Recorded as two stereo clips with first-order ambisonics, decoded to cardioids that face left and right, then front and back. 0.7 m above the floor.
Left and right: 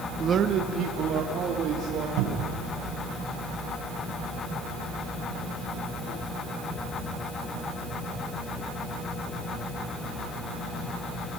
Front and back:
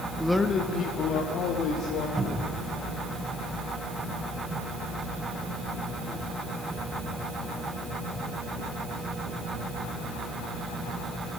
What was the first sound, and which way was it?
A man speaking, 110° right.